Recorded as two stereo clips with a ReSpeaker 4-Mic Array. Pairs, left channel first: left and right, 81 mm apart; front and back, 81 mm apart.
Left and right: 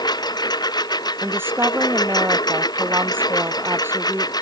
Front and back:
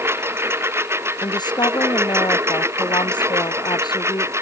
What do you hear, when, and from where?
0.0 s a lawn mower: 120° left; by 4.4 s 125° left
1.2 s a woman speaking: 30° right